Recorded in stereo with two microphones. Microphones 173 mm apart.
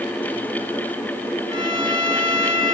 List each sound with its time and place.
1.5 s a violin: 25° right (ahead or behind), 7 m